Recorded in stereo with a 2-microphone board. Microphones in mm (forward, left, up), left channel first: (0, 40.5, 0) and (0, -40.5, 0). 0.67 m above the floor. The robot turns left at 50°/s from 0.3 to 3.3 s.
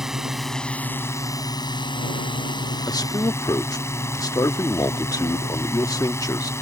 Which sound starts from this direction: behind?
A drone, at 0.0 s.